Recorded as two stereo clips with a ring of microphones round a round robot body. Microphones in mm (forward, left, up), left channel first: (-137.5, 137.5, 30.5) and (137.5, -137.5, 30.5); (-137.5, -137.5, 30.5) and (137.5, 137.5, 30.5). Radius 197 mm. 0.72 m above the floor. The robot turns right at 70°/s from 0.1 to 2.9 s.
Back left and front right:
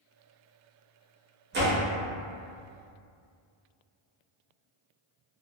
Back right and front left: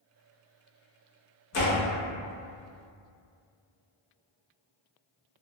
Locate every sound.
1.5 s a door slam: 100° right, 0.8 m; by 1.8 s 80° right, 0.8 m